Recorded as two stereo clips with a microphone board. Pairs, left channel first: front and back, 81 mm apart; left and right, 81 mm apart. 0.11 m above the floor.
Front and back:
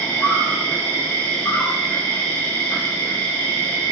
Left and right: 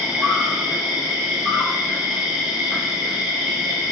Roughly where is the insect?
Ahead.